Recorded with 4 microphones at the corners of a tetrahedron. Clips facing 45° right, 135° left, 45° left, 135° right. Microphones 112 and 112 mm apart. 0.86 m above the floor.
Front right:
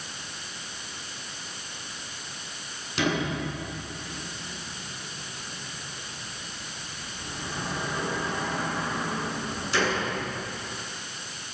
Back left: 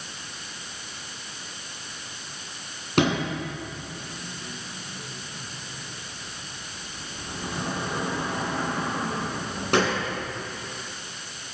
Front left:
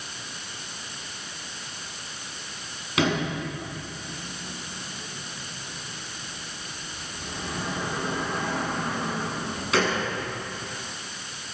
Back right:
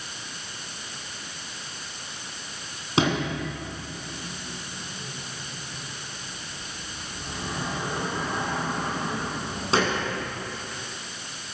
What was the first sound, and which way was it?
A sliding door, 165° left.